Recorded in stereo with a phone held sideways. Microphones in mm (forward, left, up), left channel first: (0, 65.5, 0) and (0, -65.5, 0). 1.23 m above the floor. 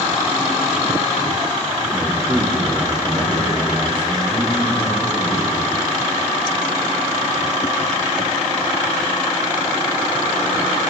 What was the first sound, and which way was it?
A man speaking, 15° right (ahead or behind).